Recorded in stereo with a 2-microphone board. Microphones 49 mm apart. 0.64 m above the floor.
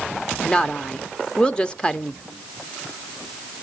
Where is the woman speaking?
20° left (ahead or behind), 0.8 m.